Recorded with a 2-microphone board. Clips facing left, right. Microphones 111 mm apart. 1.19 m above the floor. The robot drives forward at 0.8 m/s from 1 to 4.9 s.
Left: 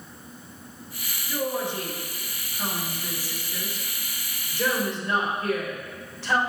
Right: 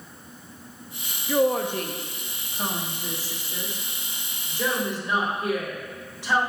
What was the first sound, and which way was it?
A woman speaking, 75° right (ahead or behind).